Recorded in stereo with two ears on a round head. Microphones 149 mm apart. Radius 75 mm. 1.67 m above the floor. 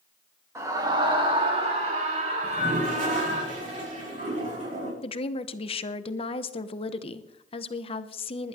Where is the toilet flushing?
45° right (ahead or behind), 5 m.